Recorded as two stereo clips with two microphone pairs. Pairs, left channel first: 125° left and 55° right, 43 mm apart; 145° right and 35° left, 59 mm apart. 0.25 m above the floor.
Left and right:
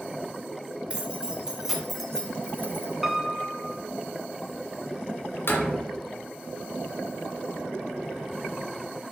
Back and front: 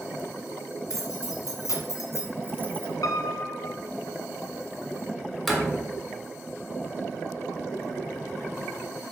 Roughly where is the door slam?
Behind left.